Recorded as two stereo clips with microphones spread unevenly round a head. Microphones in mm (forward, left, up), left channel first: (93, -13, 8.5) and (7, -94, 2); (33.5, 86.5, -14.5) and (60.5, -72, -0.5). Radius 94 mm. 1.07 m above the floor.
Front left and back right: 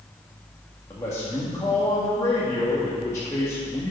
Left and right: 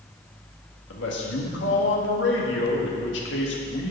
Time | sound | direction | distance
0.9 | a man speaking | 120° left | 1.7 m